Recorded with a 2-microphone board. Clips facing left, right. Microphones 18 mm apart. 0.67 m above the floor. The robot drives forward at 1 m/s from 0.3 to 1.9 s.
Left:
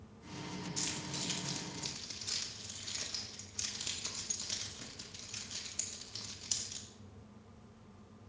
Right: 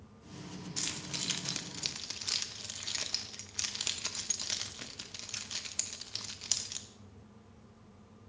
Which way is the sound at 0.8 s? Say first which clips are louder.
Right 3 dB; 25° right (ahead or behind).